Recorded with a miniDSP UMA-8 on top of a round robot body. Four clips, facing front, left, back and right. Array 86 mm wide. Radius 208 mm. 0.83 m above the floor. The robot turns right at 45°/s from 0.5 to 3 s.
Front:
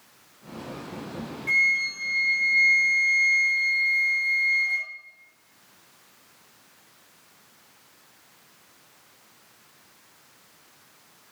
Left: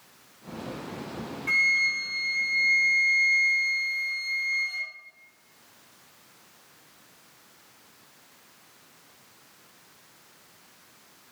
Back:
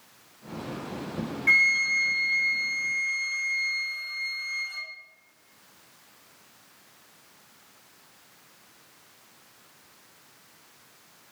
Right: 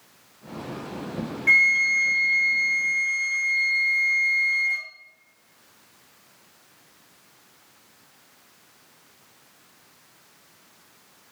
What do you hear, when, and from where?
1.5 s a flute: 120° right, 1.5 m; by 4.9 s 50° right, 1.5 m